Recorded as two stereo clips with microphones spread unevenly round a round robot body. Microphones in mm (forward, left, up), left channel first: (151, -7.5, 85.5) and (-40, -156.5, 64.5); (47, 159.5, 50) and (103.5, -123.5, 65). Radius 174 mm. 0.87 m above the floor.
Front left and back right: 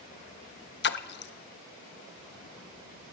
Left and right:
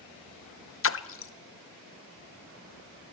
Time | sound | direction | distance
0.8 | a splash | 75° left | 1.2 m